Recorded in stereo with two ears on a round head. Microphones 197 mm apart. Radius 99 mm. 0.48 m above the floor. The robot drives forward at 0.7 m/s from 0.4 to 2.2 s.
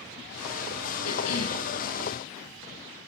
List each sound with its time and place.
1.0 s a cough: 80° left, 7 m